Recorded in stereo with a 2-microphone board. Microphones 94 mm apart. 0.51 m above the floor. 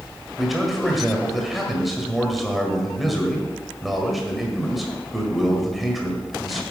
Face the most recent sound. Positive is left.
turn(degrees=0)  # may be behind; listen again after turning